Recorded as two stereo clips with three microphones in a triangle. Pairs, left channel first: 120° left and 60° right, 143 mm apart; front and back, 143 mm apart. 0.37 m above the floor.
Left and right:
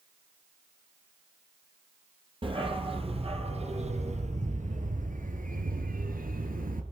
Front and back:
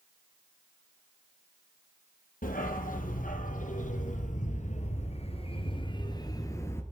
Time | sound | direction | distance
2.4 | a dog barking | 10° right | 3 m